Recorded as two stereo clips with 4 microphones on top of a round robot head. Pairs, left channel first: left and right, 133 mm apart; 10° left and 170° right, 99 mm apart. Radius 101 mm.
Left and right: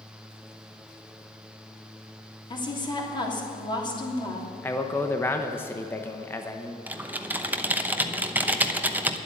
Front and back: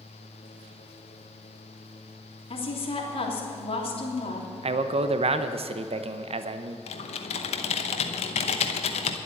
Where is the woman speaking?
35° left, 3 m.